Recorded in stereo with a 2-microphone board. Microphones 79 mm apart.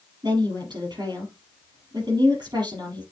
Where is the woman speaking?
65° right (ahead or behind), 5.5 m.